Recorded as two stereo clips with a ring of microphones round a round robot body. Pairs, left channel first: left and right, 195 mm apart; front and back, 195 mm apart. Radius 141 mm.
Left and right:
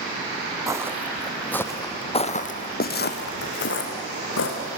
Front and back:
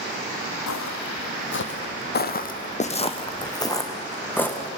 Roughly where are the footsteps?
Ahead.